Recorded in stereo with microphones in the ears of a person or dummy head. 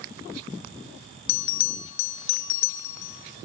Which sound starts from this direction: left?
A bell, at 1.3 s.